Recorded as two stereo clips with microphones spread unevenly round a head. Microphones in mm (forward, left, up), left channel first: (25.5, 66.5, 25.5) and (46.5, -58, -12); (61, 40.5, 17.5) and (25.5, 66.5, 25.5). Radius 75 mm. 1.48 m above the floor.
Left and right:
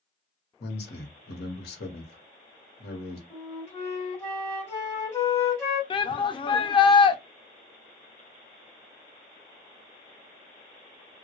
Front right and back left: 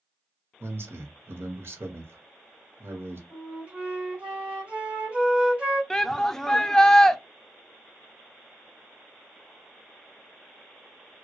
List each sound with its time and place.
0.6 s a man speaking: 115° left, 0.9 m
3.3 s a flute: 145° left, 1.6 m
5.9 s a shout: 45° left, 0.6 m